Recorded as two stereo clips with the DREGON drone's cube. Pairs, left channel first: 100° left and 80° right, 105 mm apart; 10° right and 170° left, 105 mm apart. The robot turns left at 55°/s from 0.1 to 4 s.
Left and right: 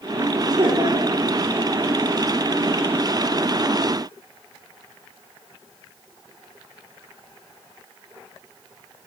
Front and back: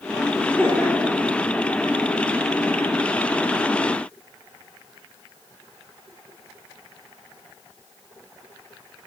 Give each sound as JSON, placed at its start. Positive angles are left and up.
{"t": 0.4, "sound": "laughter", "azimuth_deg": -70, "distance_m": 2.5}